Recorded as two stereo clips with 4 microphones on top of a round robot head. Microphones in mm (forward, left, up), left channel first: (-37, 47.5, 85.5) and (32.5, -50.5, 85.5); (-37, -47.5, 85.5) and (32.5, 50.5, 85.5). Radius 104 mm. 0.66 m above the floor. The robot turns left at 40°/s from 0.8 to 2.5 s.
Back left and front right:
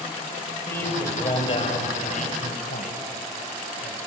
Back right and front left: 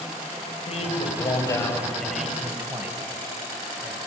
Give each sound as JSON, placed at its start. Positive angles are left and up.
{"t": 0.7, "sound": "a man speaking", "azimuth_deg": -165, "distance_m": 4.5}